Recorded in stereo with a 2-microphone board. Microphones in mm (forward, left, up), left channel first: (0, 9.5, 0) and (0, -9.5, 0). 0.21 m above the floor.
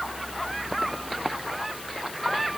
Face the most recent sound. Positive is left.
No sound to turn to.